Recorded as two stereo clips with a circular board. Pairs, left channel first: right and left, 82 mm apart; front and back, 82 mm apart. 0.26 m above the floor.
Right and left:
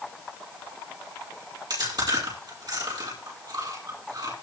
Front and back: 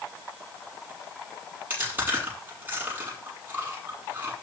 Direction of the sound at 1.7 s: 115° left.